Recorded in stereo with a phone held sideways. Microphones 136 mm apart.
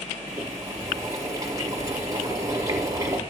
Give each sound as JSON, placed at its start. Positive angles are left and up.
{"t": 0.3, "sound": "boiling", "side_deg": -25, "distance_m": 5.0}